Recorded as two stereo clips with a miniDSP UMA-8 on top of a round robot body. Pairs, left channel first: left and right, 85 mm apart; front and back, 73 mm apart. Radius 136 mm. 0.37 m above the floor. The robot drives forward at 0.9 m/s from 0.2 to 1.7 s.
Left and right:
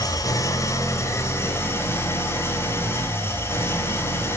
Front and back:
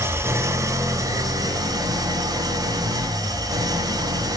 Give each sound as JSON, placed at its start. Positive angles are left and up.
{"t": 0.0, "sound": "an engine running", "azimuth_deg": 130, "distance_m": 2.0}